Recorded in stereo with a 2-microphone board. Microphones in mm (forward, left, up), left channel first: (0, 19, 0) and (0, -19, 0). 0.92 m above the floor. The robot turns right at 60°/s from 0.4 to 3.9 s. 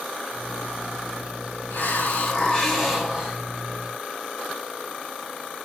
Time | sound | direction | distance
1.7 | a hiss | 110° left | 4.5 m